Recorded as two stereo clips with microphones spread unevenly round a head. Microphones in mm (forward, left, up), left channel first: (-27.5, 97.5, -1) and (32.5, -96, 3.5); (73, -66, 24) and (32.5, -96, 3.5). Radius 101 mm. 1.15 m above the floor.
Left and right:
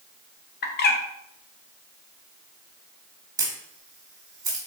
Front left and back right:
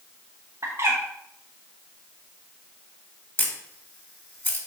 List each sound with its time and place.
0.6 s a bird: 150° left, 1.0 m
3.4 s a camera shutter: straight ahead, 2.5 m